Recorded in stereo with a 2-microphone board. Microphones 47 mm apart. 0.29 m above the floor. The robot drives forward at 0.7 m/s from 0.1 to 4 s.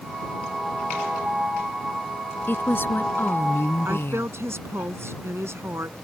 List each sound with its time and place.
2.5 s a woman speaking: 45° left (ahead or behind); by 4.3 s 55° left (ahead or behind)
3.9 s a woman speaking: 60° right (ahead or behind); by 6.0 s 65° right (ahead or behind)